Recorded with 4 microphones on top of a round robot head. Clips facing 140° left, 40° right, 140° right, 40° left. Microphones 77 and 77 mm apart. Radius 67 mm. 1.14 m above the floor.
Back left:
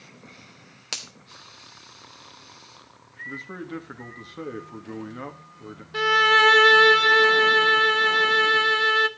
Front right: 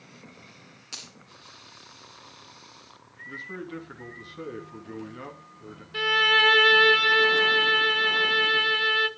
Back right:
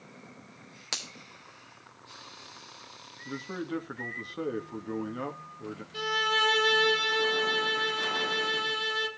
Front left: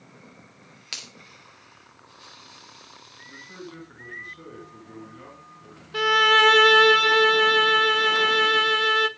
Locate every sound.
0.9 s a finger snap: 160° left, 3 m
3.2 s a man speaking: 160° right, 2.5 m
5.9 s a violin: 75° left, 0.7 m